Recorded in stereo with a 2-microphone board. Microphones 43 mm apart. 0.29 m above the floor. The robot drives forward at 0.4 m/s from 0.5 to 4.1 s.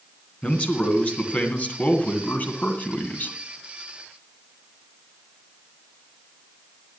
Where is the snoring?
I don't hear snoring.